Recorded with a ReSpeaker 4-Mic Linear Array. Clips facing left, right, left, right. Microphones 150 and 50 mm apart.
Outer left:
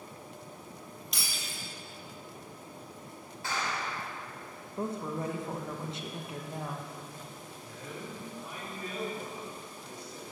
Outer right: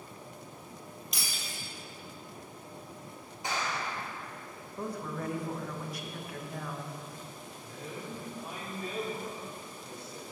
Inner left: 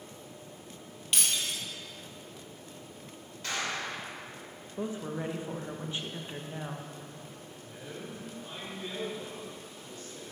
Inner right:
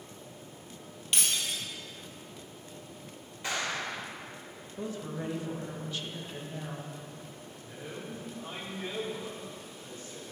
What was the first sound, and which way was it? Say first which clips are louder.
Breaking glass: even, even; centre (ahead or behind).